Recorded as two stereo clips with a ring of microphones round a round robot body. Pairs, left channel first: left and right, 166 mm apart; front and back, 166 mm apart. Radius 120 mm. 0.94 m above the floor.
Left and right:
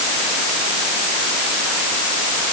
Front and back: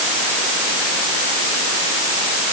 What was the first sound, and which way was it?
Only background noise.